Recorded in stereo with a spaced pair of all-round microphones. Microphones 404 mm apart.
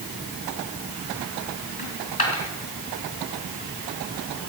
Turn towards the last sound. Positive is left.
turn(degrees=60)  # may be behind; listen again after turning